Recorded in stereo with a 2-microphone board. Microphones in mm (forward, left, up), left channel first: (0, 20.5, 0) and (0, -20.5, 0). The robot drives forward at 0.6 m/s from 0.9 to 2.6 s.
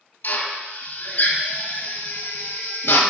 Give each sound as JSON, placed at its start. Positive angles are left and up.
{"t": 0.2, "sound": "a drill", "side_deg": 55, "distance_m": 1.5}